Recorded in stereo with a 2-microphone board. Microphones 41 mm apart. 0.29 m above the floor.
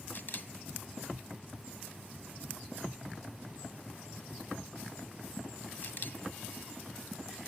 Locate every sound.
0.1 s a camera shutter: 50° left (ahead or behind), 0.9 m